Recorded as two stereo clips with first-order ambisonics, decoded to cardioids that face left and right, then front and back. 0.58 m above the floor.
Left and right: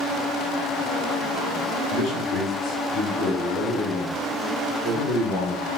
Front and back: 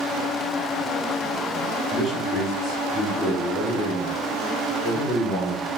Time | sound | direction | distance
1.9 | a man speaking | 70° left | 1.3 m